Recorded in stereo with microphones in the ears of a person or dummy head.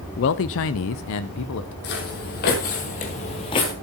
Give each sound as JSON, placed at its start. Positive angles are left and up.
{"t": 0.2, "sound": "a man speaking", "side_deg": 55, "distance_m": 0.6}
{"t": 1.8, "sound": "footsteps", "side_deg": 50, "distance_m": 3.0}